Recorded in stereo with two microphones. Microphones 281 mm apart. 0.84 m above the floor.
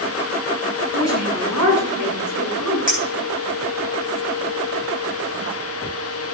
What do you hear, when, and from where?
0.9 s a woman speaking: 65° right (ahead or behind), 7.5 m; by 2.8 s 75° right (ahead or behind), 8.5 m
2.9 s a clink: 30° right (ahead or behind), 10 m